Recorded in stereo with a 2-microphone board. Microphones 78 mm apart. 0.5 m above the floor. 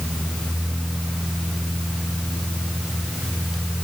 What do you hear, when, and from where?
Only background noise.